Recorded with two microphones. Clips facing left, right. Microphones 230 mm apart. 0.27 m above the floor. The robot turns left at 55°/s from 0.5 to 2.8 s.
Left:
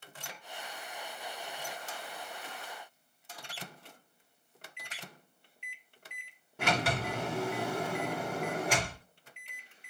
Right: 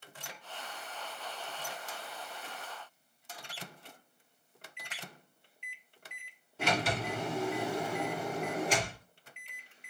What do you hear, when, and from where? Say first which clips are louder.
4.9 s a finger snap: right 2 dB; 35° left (ahead or behind), 2.5 m
6.6 s a sliding door: even; 65° left (ahead or behind), 1.8 m